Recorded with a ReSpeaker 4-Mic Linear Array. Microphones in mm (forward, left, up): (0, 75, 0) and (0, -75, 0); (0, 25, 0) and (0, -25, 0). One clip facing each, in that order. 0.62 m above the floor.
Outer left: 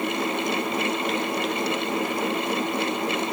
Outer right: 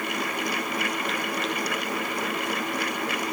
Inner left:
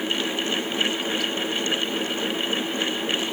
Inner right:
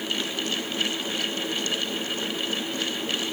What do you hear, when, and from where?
Only background noise.